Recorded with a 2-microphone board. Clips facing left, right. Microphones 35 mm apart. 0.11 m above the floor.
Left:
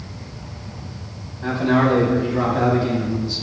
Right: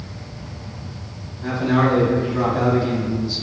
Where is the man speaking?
25° left (ahead or behind), 3.5 m; by 3.4 s centre (ahead or behind), 4 m.